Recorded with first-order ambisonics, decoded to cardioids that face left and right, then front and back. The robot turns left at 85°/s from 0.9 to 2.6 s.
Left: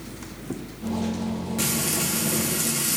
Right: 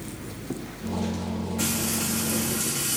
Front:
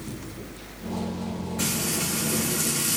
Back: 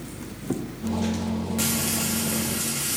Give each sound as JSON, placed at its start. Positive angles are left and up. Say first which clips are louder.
{"t": 1.6, "sound": "frying", "louder": "left 2 dB, even", "azimuth_deg": 145, "distance_m": 0.9}